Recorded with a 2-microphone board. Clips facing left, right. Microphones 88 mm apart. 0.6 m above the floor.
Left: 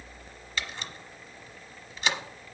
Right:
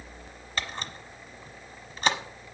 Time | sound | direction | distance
0.6 | a camera shutter | 45° right (ahead or behind) | 1.0 m